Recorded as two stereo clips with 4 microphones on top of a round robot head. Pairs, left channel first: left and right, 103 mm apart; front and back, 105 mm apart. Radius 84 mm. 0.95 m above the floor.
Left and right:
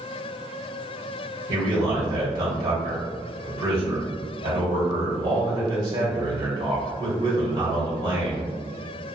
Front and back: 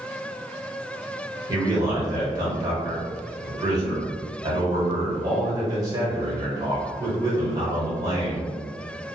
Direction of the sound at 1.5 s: 135° right.